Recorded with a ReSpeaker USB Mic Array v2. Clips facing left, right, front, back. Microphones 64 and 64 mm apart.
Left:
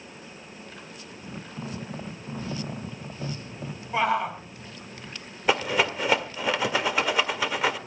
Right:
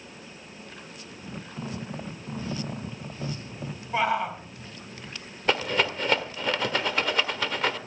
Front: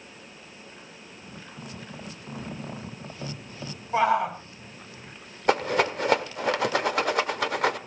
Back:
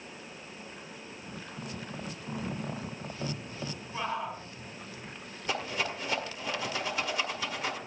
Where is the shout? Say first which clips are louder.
Left 1 dB, front 12 dB; straight ahead, 3 m.